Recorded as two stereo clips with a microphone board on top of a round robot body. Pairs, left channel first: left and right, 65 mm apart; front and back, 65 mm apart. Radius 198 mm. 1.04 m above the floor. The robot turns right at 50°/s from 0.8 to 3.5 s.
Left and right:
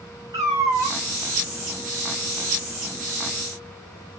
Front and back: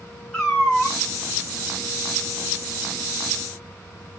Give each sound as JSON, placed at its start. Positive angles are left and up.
{"t": 0.3, "sound": "a cat meowing", "azimuth_deg": -80, "distance_m": 1.7}